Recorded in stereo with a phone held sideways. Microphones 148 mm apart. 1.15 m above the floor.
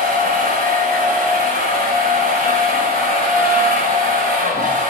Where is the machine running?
80° right, 4.5 m.